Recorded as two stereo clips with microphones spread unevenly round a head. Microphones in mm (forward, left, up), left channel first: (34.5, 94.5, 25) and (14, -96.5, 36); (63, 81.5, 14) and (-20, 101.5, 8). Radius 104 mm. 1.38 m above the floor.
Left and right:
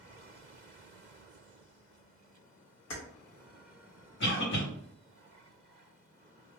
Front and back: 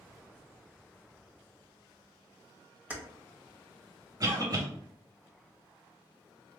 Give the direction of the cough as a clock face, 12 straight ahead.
8 o'clock.